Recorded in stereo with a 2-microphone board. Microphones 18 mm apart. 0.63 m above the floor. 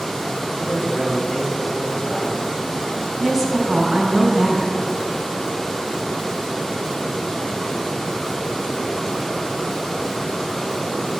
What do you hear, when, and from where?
0.6 s a man speaking: 55° left (ahead or behind), 5 m; by 3.1 s 15° left (ahead or behind), 4.5 m
3.2 s a woman speaking: 15° left (ahead or behind), 4.5 m